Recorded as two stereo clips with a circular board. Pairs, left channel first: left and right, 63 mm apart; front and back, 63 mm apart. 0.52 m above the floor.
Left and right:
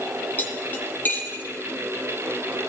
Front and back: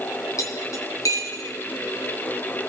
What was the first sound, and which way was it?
Cutlery clinking, 30° left.